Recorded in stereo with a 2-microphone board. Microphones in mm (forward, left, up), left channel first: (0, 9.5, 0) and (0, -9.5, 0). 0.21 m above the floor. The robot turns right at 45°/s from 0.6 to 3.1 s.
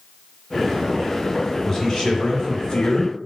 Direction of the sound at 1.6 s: 30° left.